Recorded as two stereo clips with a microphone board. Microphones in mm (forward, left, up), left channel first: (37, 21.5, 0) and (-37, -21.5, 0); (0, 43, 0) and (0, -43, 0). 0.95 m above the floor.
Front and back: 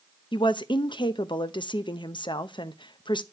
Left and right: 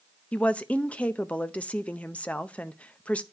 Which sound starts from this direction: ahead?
A woman speaking, at 0.3 s.